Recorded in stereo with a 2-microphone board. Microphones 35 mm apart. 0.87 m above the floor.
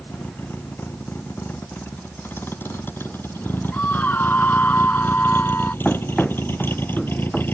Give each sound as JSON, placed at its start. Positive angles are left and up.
{"t": 0.0, "sound": "a vehicle", "side_deg": 75}
{"t": 3.7, "sound": "a scream", "side_deg": 55}
{"t": 5.8, "sound": "running footsteps", "side_deg": 25}